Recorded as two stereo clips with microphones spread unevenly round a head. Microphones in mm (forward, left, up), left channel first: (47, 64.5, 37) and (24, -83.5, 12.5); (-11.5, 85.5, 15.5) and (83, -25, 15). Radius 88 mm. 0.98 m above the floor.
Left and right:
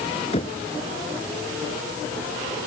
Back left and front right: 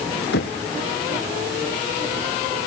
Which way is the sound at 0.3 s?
140° left.